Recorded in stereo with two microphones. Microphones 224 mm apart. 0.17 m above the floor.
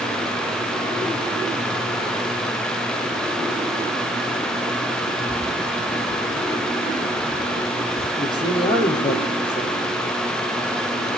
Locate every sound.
5.3 s keys jangling: centre (ahead or behind), 0.9 m; by 8.1 s 70° left (ahead or behind), 3 m
8.2 s a man speaking: 20° left (ahead or behind), 5.5 m